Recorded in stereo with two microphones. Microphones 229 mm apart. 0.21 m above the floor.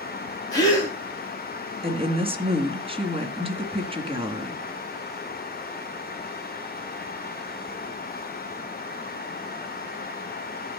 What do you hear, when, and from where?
0.5 s a gasp: 15° left (ahead or behind), 4 m
1.8 s a woman speaking: 25° right (ahead or behind), 1.9 m